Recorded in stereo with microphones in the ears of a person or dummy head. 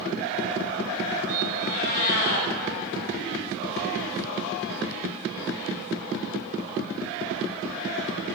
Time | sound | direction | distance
1.6 | a cat meowing | 45° left (ahead or behind) | 1.7 m